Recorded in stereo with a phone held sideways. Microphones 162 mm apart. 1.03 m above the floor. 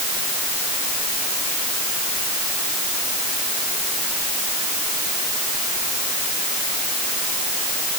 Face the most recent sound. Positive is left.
No sound to turn to.